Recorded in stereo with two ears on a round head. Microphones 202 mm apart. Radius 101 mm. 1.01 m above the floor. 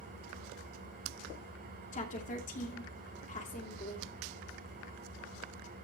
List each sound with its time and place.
0.0 s an engine running: 40° right (ahead or behind), 7 m
1.9 s a woman speaking: 35° left (ahead or behind), 2.5 m